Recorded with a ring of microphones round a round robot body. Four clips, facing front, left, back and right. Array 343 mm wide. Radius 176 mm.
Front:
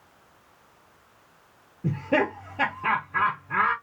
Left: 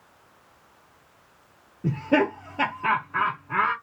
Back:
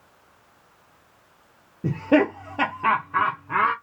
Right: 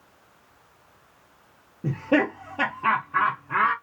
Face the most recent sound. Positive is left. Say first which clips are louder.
# even, back 5 dB
turn(degrees=-175)